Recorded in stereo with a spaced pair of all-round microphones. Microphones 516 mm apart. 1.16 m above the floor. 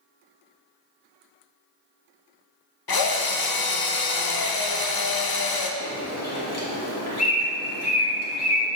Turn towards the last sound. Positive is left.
turn(degrees=30)  # may be behind; listen again after turning